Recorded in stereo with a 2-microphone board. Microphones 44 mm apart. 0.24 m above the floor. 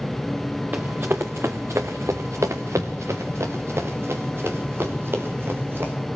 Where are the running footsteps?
40° right (ahead or behind), 1.6 m; by 5.9 s 50° right (ahead or behind), 4 m.